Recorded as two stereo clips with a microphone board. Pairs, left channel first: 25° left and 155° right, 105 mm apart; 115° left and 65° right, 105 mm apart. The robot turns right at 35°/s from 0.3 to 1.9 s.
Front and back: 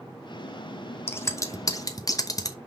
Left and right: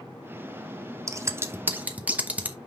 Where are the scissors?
30° right, 0.9 m; by 2.6 s straight ahead, 0.9 m.